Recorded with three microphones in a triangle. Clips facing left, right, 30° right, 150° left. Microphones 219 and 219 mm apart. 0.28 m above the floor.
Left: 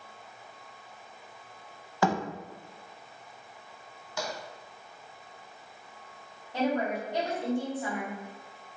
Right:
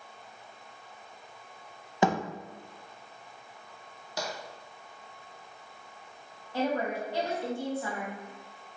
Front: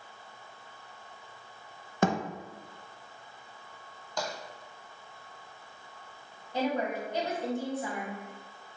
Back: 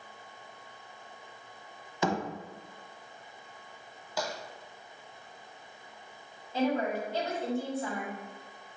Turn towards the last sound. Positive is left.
turn(degrees=30)